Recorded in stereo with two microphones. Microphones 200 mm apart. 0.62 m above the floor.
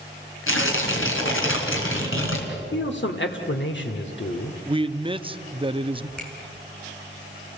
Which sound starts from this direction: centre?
A finger snap, at 6.2 s.